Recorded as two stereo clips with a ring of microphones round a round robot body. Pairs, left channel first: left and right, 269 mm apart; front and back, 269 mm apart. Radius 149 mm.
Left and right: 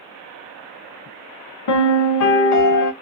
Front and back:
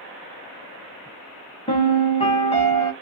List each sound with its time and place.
1.7 s a piano: 70° left, 0.7 m